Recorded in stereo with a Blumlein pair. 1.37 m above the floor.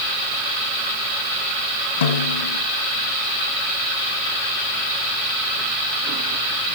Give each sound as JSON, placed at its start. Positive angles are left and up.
{"t": 2.0, "sound": "a snare drum", "azimuth_deg": 60, "distance_m": 1.6}